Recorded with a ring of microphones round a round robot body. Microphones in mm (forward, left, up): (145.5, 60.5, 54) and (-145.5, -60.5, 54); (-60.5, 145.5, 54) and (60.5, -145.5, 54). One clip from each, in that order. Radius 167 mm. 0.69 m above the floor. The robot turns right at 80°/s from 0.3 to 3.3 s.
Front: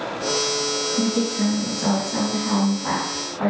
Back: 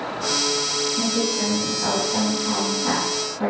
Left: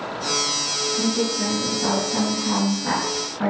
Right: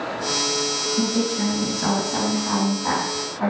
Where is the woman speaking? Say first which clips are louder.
Back 1 dB, even; 115° right, 4 m; by 3.5 s 75° left, 4 m.